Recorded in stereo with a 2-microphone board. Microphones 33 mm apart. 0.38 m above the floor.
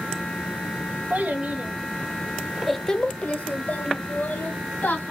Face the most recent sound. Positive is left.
turn(degrees=75)  # may be behind; listen again after turning